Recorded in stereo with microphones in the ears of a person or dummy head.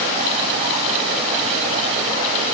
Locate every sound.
Only background noise.